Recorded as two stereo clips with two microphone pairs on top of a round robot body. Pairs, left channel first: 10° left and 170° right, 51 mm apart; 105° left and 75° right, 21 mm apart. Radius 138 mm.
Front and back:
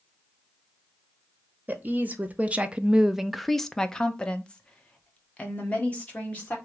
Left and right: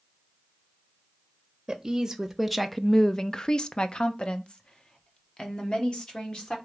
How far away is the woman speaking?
About 0.9 m.